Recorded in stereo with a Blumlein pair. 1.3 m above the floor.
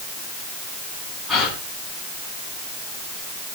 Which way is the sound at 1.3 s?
15° left.